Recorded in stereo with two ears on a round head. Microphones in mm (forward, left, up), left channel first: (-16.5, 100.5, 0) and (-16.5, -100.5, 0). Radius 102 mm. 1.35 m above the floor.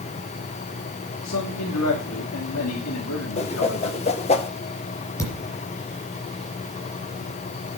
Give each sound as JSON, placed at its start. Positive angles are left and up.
{"t": 1.2, "sound": "a man speaking", "side_deg": 85, "distance_m": 2.5}
{"t": 3.4, "sound": "a whoosh", "side_deg": 30, "distance_m": 1.3}
{"t": 5.2, "sound": "a thud", "side_deg": 15, "distance_m": 5.0}